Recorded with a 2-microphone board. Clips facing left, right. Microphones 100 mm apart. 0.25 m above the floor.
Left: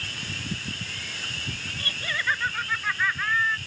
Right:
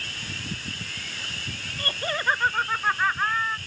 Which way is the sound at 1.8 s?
40° right (ahead or behind).